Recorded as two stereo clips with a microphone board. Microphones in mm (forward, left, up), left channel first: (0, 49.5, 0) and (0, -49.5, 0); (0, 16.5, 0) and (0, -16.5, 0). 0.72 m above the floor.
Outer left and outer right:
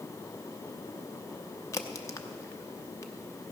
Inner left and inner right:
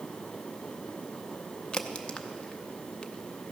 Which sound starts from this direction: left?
A crack, at 1.7 s.